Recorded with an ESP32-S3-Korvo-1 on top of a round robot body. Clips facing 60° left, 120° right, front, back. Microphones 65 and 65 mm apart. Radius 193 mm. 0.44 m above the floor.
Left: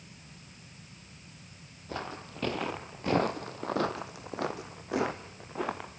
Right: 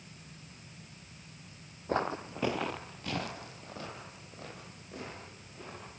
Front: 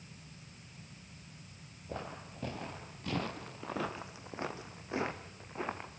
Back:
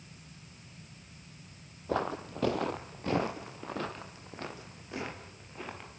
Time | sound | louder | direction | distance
1.9 | footsteps | right 6 dB, back 11 dB | 175° right | 0.9 m